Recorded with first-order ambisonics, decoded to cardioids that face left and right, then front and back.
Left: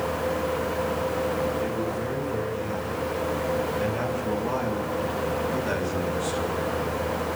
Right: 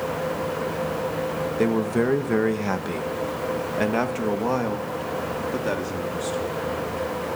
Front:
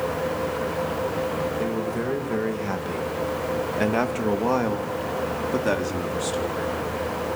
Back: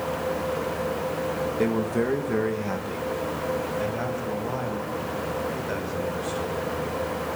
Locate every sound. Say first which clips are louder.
1.6 s a man speaking: right 5 dB, back 2 dB; 110° right, 2.5 m; by 6.8 s 10° right, 4.5 m